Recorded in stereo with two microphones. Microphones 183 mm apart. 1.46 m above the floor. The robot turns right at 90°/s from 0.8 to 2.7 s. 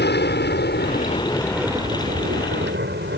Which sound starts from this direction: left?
An aircraft, at 0.0 s.